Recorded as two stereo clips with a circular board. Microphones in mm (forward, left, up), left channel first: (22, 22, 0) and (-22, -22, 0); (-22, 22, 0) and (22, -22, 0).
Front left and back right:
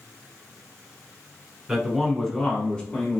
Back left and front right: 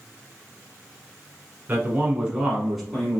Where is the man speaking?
55° right, 1.1 m; by 3.2 s 70° left, 1.1 m.